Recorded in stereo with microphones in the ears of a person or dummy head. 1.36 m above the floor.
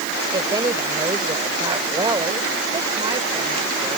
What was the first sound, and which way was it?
A woman speaking, 20° right (ahead or behind).